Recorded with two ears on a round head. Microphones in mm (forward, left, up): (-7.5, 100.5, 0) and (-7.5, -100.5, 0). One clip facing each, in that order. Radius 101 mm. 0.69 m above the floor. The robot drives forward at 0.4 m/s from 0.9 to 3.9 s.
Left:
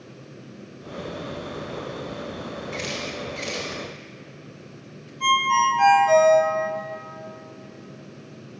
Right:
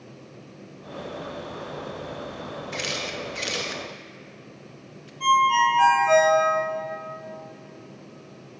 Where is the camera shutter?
15° right (ahead or behind), 0.8 m; by 5.1 s 20° right (ahead or behind), 0.6 m.